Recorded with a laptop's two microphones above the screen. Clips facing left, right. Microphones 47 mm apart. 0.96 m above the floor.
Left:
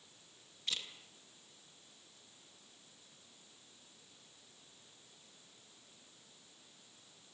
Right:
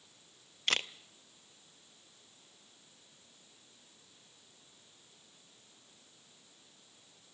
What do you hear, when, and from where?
0.7 s a camera shutter: 65° right (ahead or behind), 0.6 m